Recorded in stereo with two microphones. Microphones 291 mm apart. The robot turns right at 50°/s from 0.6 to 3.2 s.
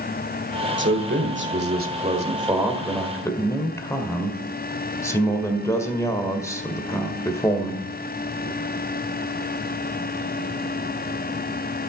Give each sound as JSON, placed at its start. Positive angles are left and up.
{"t": 0.8, "sound": "a man speaking", "azimuth_deg": -105, "distance_m": 1.6}